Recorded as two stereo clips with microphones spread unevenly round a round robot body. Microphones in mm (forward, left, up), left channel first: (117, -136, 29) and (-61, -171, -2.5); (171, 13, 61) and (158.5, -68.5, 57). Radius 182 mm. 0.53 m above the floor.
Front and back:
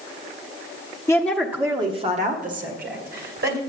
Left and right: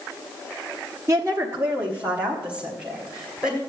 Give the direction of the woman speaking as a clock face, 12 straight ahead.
2 o'clock.